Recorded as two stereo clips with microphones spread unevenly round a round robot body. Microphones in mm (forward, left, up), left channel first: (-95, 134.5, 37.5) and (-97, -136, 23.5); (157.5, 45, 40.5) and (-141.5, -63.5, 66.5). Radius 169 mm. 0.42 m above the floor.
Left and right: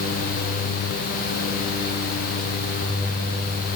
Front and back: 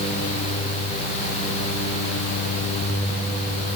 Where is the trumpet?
No trumpet in this recording.